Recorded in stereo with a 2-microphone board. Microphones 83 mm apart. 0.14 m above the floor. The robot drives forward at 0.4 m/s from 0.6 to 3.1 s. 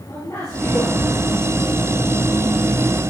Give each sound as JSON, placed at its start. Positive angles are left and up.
{"t": 0.1, "sound": "a man speaking", "side_deg": 35, "distance_m": 4.0}